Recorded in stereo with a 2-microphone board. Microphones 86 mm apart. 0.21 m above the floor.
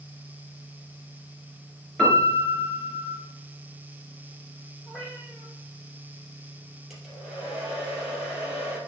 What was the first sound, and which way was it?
A piano, 10° left (ahead or behind).